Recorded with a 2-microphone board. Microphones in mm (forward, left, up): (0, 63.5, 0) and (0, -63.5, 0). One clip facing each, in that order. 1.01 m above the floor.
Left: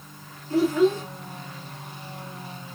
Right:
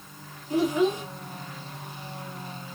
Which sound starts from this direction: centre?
A child speaking, at 0.5 s.